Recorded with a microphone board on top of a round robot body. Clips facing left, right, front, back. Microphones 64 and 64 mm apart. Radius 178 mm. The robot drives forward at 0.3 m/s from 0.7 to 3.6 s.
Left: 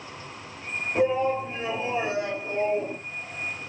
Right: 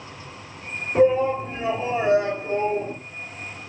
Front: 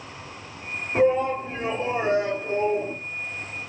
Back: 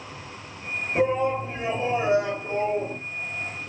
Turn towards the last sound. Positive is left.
turn(degrees=-45)